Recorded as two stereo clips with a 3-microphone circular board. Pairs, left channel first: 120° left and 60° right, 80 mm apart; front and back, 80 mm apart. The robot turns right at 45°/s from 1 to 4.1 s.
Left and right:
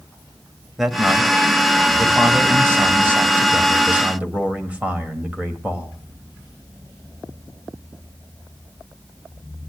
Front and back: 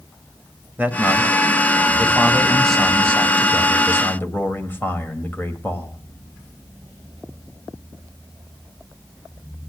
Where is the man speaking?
150° right, 1.7 m; by 6.0 s 15° right, 1.7 m.